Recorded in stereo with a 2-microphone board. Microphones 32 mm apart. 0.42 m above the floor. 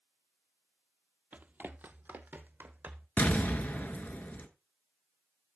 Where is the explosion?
70° left (ahead or behind), 1.1 m.